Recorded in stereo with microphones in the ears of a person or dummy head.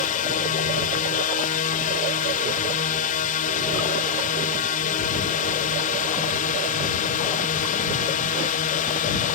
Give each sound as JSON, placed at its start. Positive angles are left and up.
{"t": 0.0, "sound": "a drone", "side_deg": 40}